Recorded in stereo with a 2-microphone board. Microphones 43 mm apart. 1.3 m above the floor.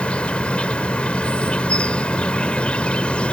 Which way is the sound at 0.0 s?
25° left (ahead or behind).